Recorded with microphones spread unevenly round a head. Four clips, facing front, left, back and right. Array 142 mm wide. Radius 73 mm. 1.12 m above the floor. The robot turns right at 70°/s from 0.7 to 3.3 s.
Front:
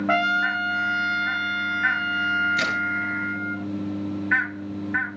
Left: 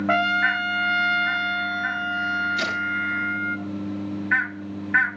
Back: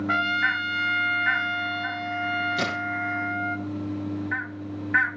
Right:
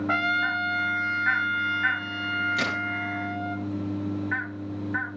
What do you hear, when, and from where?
0.1 s a trumpet: 50° left, 1.5 m; by 3.6 s 130° right, 1.5 m
2.6 s a crack: 140° right, 4.5 m; by 2.8 s 120° right, 4.5 m